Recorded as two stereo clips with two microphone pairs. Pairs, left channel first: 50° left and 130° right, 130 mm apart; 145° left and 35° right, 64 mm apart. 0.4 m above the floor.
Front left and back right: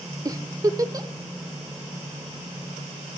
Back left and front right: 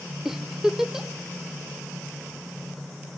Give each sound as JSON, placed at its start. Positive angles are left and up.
{"t": 0.2, "sound": "a giggle", "azimuth_deg": -110, "distance_m": 0.6}